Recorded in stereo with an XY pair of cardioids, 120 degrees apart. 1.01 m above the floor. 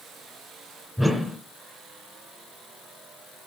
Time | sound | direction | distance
1.0 | a whoosh | straight ahead | 2.5 m